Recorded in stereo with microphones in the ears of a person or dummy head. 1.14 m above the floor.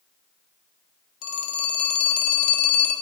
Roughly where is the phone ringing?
Left.